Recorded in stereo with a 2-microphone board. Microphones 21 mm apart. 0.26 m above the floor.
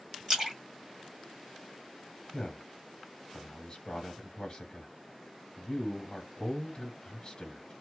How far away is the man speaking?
About 1.1 m.